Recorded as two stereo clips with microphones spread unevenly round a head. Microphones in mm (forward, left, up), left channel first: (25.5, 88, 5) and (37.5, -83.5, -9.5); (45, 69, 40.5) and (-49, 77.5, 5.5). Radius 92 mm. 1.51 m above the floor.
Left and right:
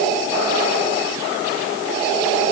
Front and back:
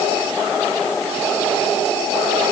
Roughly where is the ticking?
I don't hear ticking.